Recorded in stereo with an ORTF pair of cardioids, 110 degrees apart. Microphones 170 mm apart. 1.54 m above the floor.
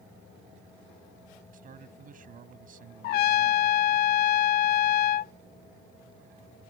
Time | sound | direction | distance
1.5 | a man speaking | 55° right | ?
3.0 | a trumpet | 70° left | ?